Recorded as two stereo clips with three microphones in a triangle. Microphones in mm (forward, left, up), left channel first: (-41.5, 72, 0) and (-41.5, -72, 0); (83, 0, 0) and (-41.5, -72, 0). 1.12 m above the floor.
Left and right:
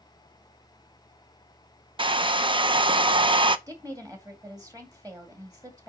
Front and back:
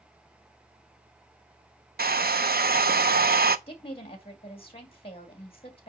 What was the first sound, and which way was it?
A hair dryer, 150° right.